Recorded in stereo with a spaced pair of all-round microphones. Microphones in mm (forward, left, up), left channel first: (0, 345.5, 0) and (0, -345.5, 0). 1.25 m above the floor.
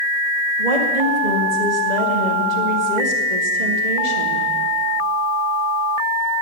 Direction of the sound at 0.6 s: 80° right.